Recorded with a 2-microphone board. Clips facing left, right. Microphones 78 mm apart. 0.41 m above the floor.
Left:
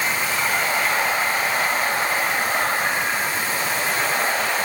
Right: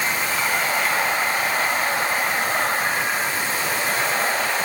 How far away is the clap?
No clap in this recording.